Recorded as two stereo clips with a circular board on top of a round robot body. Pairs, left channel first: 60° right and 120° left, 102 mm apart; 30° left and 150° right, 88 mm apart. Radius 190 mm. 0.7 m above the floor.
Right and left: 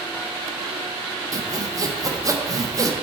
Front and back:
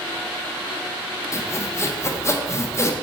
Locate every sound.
1.3 s sawing: 75° left, 1.1 m